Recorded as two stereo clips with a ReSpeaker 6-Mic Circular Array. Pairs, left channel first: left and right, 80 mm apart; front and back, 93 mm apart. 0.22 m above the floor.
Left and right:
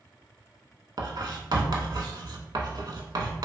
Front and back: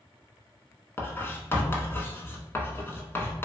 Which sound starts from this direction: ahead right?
Writing, at 1.0 s.